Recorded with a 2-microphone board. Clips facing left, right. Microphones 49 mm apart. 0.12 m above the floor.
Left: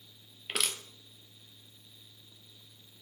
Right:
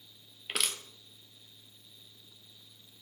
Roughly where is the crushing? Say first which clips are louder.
Even; centre.